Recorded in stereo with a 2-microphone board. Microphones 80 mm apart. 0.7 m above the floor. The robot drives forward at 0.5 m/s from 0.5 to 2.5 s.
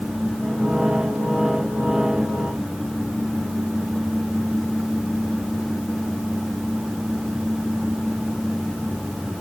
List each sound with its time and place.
Only background noise.